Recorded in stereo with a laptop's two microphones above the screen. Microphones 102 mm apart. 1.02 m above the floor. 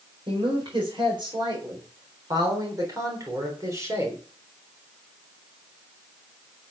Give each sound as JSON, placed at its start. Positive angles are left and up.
{"t": 0.3, "sound": "a woman speaking", "side_deg": -55, "distance_m": 4.5}